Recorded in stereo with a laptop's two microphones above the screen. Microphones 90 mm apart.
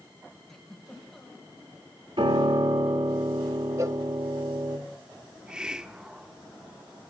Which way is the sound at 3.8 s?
35° right (ahead or behind).